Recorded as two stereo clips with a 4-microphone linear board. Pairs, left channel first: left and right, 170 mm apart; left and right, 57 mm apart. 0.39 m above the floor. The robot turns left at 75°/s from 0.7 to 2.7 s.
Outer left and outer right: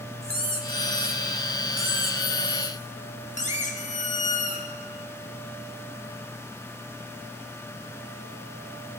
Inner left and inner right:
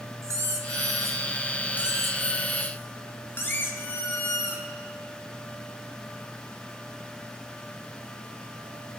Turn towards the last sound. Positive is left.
turn(degrees=135)